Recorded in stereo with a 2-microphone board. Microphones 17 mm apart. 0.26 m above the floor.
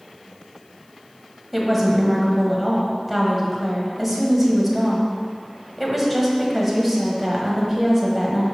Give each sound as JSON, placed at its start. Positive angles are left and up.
{"t": 1.5, "sound": "a woman speaking", "side_deg": 0, "distance_m": 1.4}